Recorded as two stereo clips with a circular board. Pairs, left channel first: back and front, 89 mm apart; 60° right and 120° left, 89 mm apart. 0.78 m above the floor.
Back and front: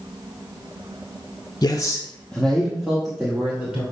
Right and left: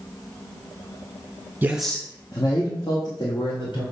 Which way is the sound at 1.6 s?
Straight behind.